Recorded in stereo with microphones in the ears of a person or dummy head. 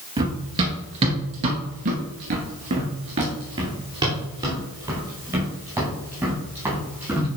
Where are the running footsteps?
25° right (ahead or behind), 2 m; by 7.3 s 5° right (ahead or behind), 4.5 m.